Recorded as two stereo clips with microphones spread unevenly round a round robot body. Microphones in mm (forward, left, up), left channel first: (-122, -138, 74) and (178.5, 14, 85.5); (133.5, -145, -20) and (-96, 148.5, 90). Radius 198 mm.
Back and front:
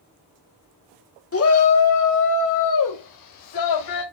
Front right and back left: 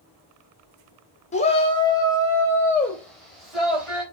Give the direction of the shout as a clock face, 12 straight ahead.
4 o'clock.